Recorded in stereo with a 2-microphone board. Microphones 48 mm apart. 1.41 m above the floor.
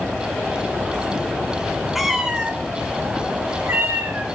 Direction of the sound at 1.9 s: Centre (ahead or behind).